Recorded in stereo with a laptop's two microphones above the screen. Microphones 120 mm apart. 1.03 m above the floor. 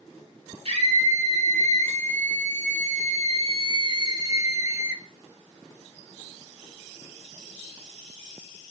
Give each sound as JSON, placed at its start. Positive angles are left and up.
{"t": 0.7, "sound": "a scream", "side_deg": -55, "distance_m": 3.5}